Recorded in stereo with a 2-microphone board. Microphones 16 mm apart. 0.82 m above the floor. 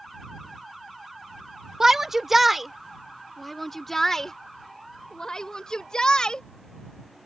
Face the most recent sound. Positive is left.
turn(degrees=55)  # may be behind; listen again after turning